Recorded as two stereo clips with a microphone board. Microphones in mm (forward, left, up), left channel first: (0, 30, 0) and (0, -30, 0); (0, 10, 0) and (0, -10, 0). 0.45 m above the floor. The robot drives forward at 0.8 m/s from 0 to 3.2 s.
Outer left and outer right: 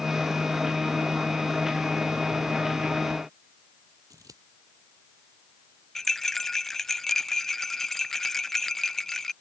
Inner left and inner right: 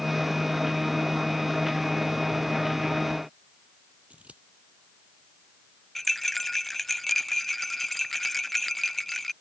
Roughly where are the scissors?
Right.